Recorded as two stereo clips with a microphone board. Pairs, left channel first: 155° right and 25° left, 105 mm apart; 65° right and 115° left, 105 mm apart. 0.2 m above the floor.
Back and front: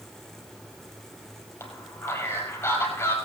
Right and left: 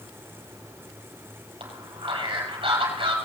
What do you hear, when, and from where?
1.6 s a man speaking: 135° left, 6.5 m